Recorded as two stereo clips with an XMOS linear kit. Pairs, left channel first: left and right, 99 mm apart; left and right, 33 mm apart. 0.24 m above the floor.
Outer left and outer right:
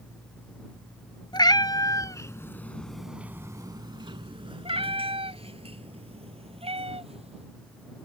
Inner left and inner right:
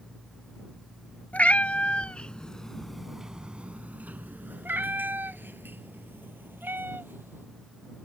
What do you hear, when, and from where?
1.3 s a cat meowing: 50° left (ahead or behind); by 7.5 s 85° right